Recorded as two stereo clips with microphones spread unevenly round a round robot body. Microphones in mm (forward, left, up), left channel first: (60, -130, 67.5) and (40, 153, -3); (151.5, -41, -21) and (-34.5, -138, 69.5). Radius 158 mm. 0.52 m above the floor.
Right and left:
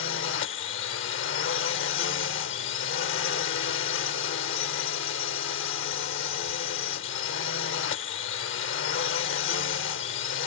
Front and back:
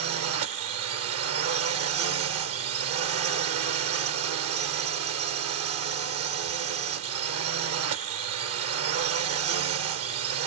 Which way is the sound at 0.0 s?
140° right.